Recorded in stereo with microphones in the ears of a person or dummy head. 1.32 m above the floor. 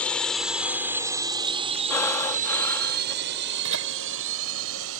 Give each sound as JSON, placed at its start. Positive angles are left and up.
{"t": 0.0, "sound": "a drone", "side_deg": 5}
{"t": 1.9, "sound": "breathing", "side_deg": 10}
{"t": 3.6, "sound": "laughter", "side_deg": -70}